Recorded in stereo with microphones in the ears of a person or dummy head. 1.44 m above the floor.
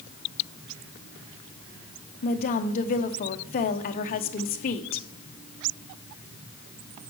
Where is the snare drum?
No snare drum in this recording.